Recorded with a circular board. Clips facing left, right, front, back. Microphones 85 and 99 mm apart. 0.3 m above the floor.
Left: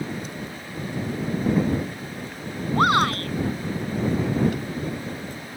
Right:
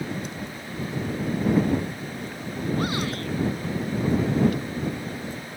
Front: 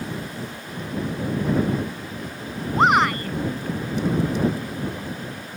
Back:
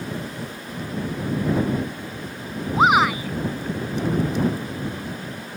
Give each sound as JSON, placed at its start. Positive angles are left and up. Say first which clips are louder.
{"t": 2.7, "sound": "a shout", "louder": "left 10 dB, back 1 dB", "azimuth_deg": 95}